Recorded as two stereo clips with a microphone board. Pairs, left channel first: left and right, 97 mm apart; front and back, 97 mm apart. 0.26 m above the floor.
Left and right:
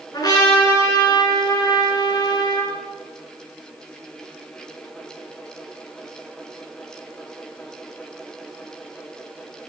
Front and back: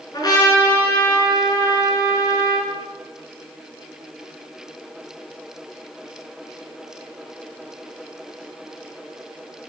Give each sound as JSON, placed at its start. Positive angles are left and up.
{"t": 0.1, "sound": "a trumpet", "azimuth_deg": 45, "distance_m": 3.5}